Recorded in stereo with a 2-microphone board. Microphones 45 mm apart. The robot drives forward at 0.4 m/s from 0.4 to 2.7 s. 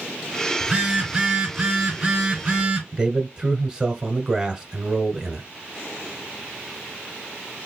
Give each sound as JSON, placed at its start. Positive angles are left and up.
{"t": 0.6, "sound": "a phone buzzing", "side_deg": -20, "distance_m": 1.8}
{"t": 2.9, "sound": "a man speaking", "side_deg": -20, "distance_m": 1.1}